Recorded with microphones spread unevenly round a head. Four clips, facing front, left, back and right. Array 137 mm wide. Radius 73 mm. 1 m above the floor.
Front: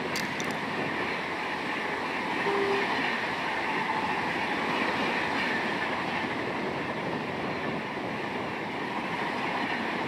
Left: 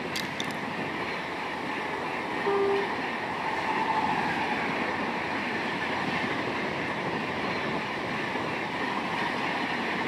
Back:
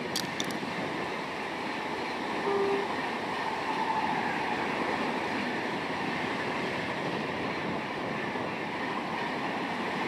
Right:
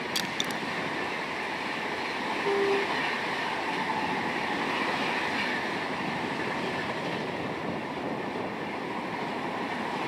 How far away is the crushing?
About 1.5 m.